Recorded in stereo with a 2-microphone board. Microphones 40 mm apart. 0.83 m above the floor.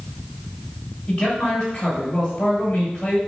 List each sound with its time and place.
1.1 s a man speaking: 25° left (ahead or behind), 3.5 m